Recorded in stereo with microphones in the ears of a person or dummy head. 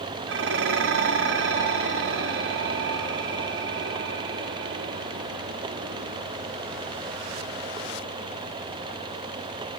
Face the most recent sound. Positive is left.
turn(degrees=-65)  # may be behind; listen again after turning